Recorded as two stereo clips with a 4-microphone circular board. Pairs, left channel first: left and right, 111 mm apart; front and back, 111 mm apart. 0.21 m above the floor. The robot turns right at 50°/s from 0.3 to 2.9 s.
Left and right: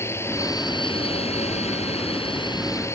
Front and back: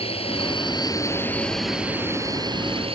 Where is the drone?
25° left; by 3.0 s 155° left.